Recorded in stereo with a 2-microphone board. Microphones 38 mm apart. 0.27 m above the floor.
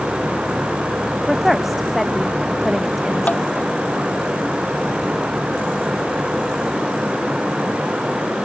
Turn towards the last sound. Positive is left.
turn(degrees=45)  # may be behind; listen again after turning